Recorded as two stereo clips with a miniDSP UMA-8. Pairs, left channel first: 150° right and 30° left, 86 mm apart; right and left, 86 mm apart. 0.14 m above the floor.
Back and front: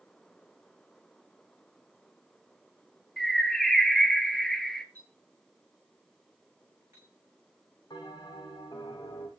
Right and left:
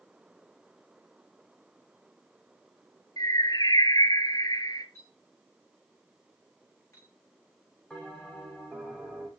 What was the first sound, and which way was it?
A bird, 65° right.